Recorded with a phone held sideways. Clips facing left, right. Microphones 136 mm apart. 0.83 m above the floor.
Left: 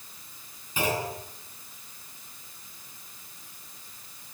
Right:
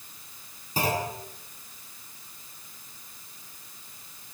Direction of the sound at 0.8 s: 35° right (ahead or behind).